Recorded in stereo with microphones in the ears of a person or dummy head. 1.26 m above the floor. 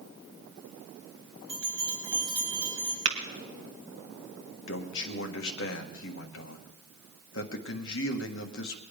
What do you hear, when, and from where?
1.5 s a bell: 30° right (ahead or behind), 4.5 m
3.0 s tapping: 40° right (ahead or behind), 2 m
4.7 s a man speaking: 65° left (ahead or behind), 1.5 m